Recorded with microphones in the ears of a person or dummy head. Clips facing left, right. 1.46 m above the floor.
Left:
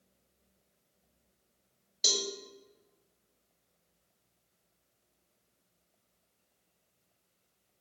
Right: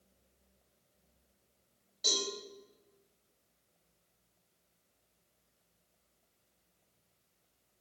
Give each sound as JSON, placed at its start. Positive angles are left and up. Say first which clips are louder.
{"t": 2.0, "sound": "a cowbell", "louder": "left 1 dB", "side_deg": 45, "distance_m": 3.0}